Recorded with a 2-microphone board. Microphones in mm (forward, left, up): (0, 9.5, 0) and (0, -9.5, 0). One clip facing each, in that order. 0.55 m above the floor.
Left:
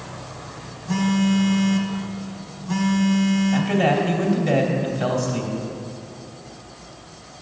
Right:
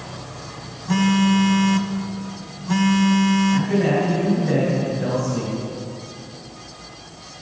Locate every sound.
0.9 s a phone buzzing: 15° right (ahead or behind), 0.5 m
3.5 s a man speaking: 60° left (ahead or behind), 2.5 m